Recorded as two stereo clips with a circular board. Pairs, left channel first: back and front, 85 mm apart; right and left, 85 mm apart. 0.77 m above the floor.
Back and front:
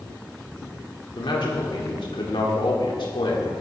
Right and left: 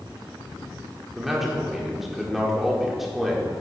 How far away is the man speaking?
About 1.6 m.